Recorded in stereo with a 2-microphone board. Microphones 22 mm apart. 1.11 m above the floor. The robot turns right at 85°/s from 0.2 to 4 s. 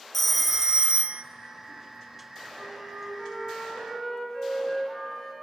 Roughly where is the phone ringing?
Behind.